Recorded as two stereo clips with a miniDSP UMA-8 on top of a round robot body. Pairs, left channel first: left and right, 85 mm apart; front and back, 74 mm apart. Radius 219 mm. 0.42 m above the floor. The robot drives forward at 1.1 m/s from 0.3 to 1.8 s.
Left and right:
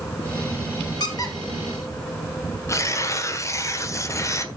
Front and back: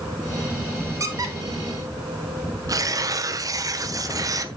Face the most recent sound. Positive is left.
turn(degrees=145)